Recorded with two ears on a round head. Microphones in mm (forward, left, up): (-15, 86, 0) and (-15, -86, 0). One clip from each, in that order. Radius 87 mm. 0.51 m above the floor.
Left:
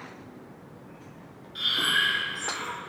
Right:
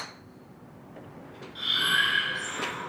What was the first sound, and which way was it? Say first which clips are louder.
Breathing: even; 20° left (ahead or behind).